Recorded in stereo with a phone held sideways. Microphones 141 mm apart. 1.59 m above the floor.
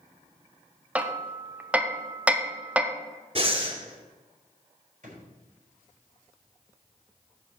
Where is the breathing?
40° right (ahead or behind), 1.7 m.